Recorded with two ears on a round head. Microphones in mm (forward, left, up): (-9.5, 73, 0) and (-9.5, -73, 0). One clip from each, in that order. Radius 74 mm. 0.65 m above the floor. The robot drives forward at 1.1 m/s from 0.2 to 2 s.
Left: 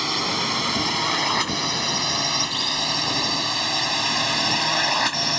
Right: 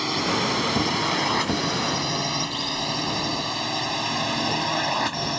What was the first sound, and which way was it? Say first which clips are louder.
A drone: left 1 dB; 25° left (ahead or behind).